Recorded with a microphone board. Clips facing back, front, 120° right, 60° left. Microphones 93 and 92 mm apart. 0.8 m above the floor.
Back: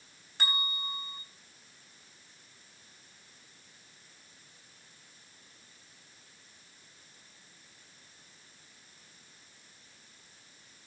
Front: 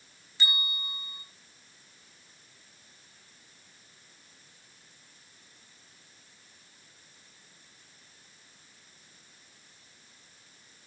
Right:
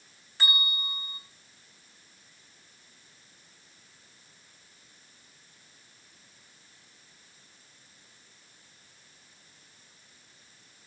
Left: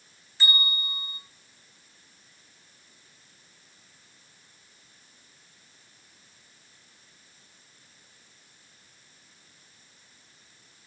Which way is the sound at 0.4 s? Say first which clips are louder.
Back 1 dB, left 2 dB; 145° right.